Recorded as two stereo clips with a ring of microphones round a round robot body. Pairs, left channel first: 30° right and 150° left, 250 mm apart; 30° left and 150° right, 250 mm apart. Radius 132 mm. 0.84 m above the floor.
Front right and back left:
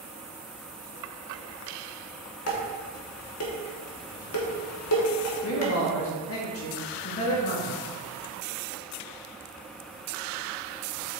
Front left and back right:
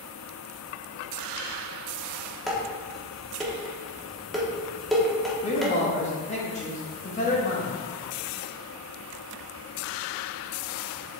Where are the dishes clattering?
60° right, 1.3 m.